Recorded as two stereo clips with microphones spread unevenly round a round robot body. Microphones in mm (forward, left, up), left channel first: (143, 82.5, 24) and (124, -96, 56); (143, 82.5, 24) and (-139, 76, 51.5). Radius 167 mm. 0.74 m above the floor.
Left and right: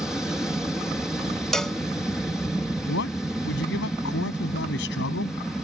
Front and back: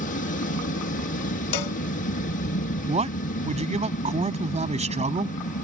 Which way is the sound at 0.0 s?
5° left.